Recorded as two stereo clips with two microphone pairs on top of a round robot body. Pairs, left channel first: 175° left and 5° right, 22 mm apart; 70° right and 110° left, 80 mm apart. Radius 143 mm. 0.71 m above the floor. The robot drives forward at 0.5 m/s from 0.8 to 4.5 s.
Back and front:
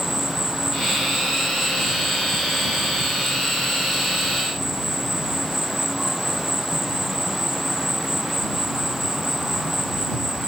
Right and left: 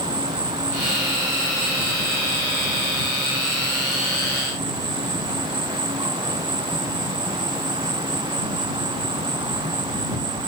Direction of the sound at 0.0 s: 70° left.